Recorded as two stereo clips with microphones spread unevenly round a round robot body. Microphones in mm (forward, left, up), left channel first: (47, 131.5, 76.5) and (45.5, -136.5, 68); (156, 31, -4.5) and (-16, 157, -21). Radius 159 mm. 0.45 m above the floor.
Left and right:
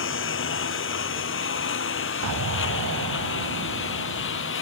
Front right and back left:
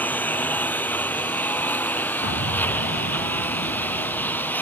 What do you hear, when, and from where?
0.0 s a lawn mower: 45° left
2.2 s an explosion: 70° right